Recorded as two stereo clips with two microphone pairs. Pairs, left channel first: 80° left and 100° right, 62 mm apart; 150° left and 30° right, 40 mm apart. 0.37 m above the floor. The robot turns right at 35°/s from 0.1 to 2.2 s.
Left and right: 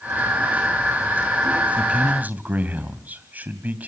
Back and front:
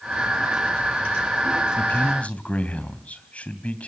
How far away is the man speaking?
About 2.5 m.